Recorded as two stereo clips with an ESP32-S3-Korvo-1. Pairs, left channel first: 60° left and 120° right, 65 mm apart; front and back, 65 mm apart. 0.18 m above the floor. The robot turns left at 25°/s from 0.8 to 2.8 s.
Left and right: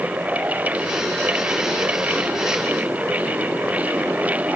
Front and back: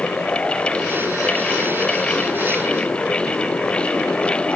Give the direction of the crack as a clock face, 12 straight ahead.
I don't hear a crack.